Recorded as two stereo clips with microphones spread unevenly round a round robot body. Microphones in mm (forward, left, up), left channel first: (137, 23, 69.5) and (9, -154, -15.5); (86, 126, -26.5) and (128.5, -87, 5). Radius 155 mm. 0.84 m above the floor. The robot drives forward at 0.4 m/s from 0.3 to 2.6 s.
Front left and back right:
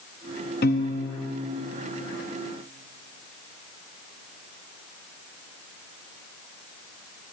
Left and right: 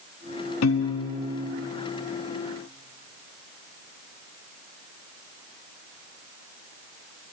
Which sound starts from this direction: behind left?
A piano, at 0.6 s.